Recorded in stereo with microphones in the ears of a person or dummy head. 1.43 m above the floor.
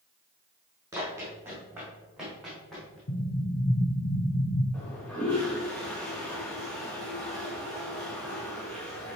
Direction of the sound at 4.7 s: 15° left (ahead or behind).